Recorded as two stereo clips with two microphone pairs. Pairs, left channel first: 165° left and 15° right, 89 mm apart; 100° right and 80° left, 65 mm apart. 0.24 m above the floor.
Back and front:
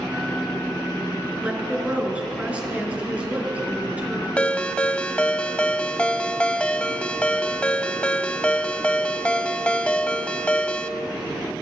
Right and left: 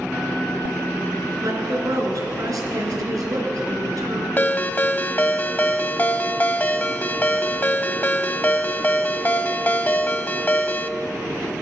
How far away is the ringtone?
About 0.7 m.